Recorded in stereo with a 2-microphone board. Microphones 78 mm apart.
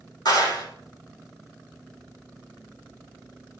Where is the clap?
60° left (ahead or behind), 4 m.